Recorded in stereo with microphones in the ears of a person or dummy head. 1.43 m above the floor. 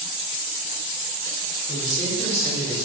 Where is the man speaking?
25° left (ahead or behind), 3 m; by 2.8 s centre (ahead or behind), 1.6 m.